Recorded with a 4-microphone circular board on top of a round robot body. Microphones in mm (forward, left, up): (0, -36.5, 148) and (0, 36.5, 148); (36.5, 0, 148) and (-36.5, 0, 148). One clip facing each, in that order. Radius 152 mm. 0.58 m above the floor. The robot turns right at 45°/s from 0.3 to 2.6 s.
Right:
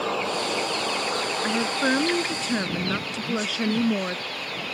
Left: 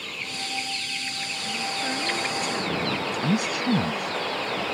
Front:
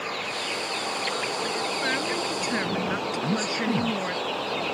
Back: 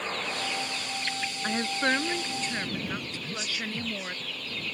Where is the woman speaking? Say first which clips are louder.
Right 5 dB, back 4 dB; 125° right; by 4.2 s 75° right.